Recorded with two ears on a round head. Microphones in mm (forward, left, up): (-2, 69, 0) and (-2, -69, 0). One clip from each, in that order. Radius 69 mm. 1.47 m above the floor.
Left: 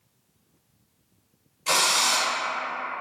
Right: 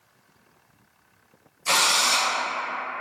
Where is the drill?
5° left (ahead or behind), 0.5 m.